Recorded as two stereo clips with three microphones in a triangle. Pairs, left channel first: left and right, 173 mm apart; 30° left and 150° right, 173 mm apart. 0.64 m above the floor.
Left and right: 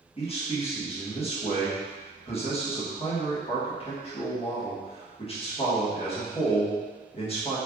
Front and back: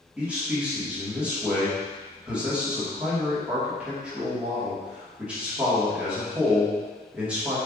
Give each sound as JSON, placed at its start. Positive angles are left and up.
{"t": 0.2, "sound": "a man speaking", "azimuth_deg": 130, "distance_m": 1.2}